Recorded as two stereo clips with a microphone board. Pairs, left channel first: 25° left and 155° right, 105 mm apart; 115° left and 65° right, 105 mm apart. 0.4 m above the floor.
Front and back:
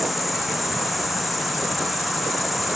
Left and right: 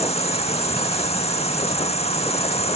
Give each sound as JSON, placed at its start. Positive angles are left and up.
{"t": 0.0, "sound": "an insect", "azimuth_deg": 115}